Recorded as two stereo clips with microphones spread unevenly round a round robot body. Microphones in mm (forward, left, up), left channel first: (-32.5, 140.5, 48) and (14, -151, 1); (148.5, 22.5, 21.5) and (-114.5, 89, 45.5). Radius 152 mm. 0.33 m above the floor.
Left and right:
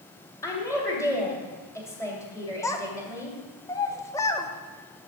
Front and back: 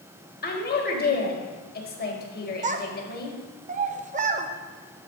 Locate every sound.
0.4 s a woman speaking: 15° left, 1.7 m
2.6 s a child speaking: 175° right, 0.6 m